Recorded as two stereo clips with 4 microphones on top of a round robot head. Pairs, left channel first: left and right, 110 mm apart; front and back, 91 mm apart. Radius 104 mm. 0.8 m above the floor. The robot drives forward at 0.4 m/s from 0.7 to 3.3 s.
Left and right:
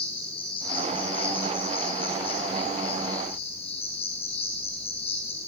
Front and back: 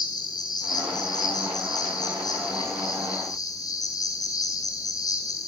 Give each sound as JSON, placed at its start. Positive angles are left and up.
{"t": 0.0, "sound": "an insect", "azimuth_deg": 45, "distance_m": 9.0}